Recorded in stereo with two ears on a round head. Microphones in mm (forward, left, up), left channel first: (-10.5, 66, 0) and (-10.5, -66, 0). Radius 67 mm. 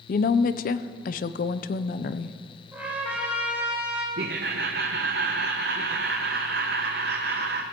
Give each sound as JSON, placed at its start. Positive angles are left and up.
{"t": 0.1, "sound": "a woman speaking", "side_deg": 60, "distance_m": 0.5}
{"t": 2.7, "sound": "a trumpet", "side_deg": -10, "distance_m": 3.0}
{"t": 4.2, "sound": "laughter", "side_deg": -75, "distance_m": 0.7}